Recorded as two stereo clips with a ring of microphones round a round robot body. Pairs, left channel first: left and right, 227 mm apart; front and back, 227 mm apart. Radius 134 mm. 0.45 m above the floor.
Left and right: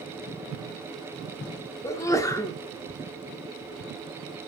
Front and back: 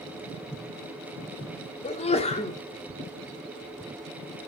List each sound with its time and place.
1.8 s a sneeze: 25° left, 1.2 m